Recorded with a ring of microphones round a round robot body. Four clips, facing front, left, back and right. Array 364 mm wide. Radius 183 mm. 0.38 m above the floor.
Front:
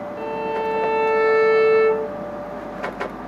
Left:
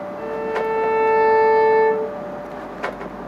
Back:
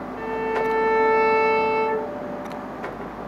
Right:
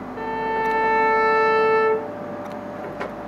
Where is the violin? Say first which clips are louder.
Even, back 1 dB; 80° right, 0.8 m.